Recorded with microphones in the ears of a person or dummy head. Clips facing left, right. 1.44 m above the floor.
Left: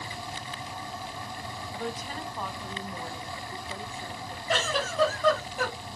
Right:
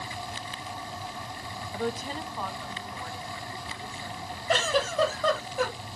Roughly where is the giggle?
Right.